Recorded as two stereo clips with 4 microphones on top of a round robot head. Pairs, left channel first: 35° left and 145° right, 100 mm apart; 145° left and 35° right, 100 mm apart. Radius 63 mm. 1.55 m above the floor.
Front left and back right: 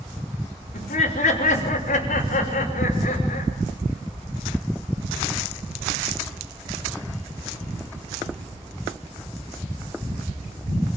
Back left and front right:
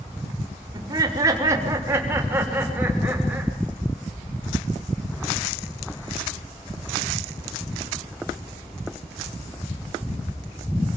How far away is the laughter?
About 5 m.